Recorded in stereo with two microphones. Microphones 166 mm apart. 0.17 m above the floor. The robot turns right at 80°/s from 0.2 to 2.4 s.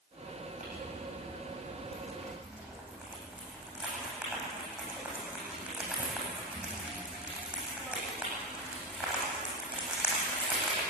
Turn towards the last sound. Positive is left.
turn(degrees=-5)  # may be behind; listen again after turning